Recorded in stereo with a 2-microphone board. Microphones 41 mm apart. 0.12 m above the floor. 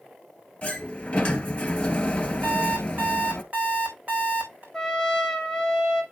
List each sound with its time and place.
0.6 s a sliding door: 30° left (ahead or behind), 1.7 m
2.4 s an alarm clock: 35° right (ahead or behind), 5 m
4.7 s a trumpet: 15° left (ahead or behind), 2 m